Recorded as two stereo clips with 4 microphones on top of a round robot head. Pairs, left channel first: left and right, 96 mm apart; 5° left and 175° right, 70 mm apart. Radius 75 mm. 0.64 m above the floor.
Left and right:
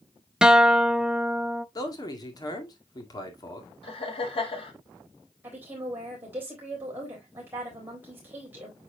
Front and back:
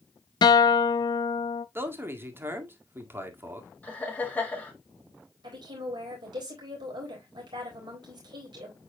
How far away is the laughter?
About 4 m.